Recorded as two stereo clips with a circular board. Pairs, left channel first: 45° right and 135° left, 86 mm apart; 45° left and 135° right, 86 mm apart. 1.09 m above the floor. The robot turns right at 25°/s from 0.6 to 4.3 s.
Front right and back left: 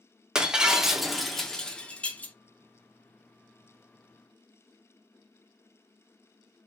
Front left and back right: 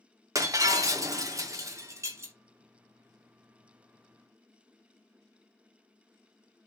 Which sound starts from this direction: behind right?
Breaking glass, at 0.3 s.